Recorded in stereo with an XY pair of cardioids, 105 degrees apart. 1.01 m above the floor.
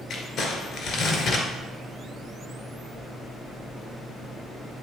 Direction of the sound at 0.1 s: 60° left.